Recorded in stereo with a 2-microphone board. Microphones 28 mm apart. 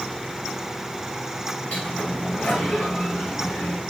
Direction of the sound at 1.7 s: 70° left (ahead or behind).